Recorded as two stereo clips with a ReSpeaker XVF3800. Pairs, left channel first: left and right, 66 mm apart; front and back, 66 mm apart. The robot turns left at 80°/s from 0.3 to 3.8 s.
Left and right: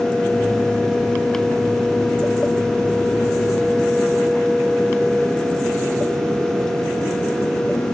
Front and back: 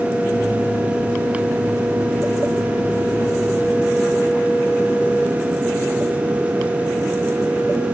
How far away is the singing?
I don't hear singing.